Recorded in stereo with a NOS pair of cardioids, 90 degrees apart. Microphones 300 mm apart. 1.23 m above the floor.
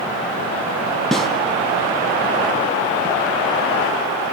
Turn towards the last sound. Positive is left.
turn(degrees=0)